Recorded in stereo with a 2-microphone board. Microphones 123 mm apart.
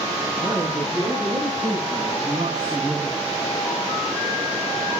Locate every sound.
0.4 s a man speaking: 25° right (ahead or behind), 9 m; by 3.2 s 5° right (ahead or behind), 6.5 m